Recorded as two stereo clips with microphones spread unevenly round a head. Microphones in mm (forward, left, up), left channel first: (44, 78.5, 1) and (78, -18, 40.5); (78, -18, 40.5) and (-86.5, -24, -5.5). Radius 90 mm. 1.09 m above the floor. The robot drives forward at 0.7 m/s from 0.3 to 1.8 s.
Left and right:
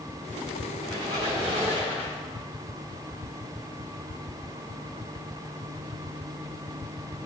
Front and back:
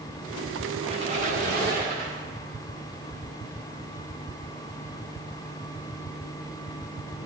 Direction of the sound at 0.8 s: 110° right.